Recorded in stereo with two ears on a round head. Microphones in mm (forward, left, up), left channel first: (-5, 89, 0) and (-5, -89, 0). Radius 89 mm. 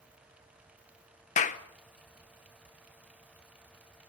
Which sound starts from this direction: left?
A clap, at 1.4 s.